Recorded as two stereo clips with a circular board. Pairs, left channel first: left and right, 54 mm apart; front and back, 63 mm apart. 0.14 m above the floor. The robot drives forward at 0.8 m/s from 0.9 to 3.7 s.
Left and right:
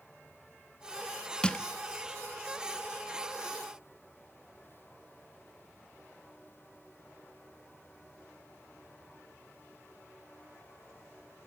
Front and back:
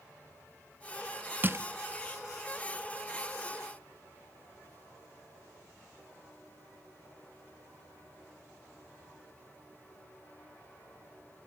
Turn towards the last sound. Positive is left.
turn(degrees=175)